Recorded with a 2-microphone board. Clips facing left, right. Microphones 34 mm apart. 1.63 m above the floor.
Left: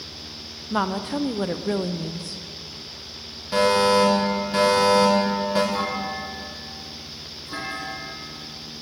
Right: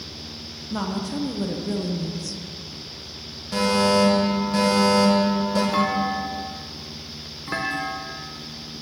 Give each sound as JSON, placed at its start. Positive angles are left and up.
{"t": 0.7, "sound": "a woman speaking", "side_deg": 30, "distance_m": 0.7}
{"t": 3.5, "sound": "a fire alarm", "side_deg": 15, "distance_m": 3.0}
{"t": 5.7, "sound": "a clunk", "side_deg": -75, "distance_m": 1.7}